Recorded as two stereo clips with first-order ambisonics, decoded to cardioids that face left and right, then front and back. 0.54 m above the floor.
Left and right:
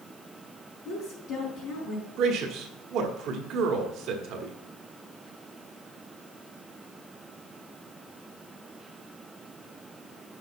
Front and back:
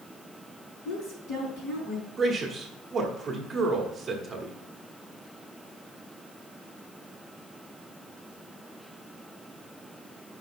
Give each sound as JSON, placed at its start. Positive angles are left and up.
{"t": 0.8, "sound": "a woman speaking", "azimuth_deg": 40, "distance_m": 4.5}
{"t": 2.2, "sound": "a man speaking", "azimuth_deg": -110, "distance_m": 1.3}